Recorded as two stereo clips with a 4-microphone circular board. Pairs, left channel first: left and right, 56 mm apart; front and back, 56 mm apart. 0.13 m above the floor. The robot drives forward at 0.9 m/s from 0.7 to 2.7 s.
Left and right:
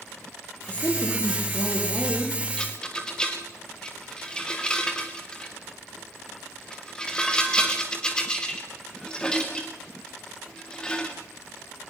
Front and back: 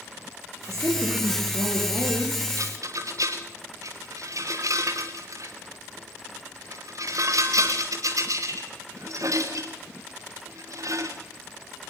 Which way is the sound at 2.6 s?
165° left.